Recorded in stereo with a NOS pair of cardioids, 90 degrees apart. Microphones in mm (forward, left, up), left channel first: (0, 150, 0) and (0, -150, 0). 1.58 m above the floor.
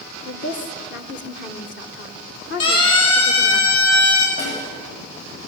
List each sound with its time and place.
0.2 s a woman speaking: 40° left, 1.9 m
2.6 s a siren: 50° left, 7 m
4.4 s a snare drum: 45° left, 9 m